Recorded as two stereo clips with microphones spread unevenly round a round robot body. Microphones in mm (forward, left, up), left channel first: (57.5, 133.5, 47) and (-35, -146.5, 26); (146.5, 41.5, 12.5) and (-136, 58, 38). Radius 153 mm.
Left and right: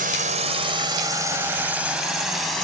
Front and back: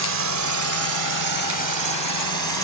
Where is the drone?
165° right; by 2.6 s 160° left.